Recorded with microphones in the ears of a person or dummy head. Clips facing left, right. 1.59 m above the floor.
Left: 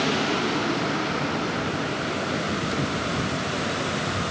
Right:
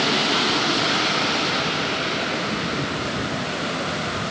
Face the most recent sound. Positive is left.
No sound to turn to.